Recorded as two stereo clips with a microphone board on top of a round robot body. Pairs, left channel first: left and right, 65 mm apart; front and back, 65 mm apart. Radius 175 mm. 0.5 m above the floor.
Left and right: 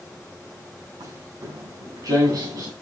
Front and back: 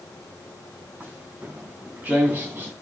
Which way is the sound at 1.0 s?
110° right.